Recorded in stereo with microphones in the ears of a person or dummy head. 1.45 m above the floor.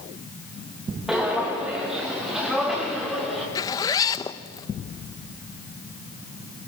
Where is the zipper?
25° left (ahead or behind), 0.8 m.